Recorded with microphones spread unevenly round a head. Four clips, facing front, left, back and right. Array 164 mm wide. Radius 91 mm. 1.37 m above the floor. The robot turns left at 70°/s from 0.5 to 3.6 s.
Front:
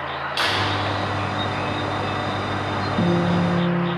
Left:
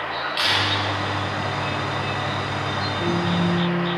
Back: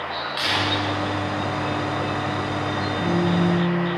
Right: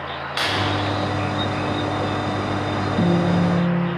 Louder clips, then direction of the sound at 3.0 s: Right 4 dB, front 1 dB; 45° right.